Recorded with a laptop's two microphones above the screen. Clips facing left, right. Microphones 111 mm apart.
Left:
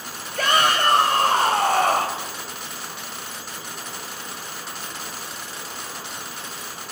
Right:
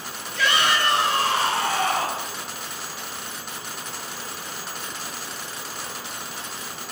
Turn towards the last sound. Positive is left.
turn(degrees=50)  # may be behind; listen again after turning